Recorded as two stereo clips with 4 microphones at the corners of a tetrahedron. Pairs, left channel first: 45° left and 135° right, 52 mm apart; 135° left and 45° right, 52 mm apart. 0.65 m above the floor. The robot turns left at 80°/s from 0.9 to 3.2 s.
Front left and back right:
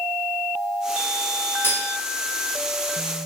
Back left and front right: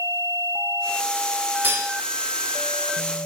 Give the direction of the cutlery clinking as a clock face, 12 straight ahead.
12 o'clock.